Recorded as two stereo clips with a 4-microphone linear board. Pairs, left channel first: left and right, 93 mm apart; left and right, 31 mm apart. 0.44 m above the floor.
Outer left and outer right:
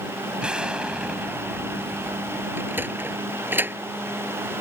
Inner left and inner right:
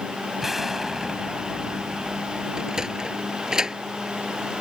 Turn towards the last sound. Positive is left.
turn(degrees=-20)  # may be behind; listen again after turning